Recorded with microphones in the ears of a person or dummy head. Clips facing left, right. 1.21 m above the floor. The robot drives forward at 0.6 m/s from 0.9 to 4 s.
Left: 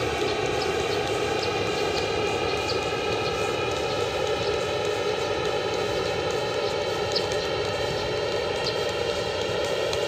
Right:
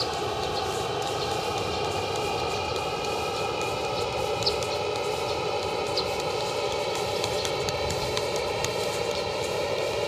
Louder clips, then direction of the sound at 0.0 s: Left 4 dB; 25° left (ahead or behind).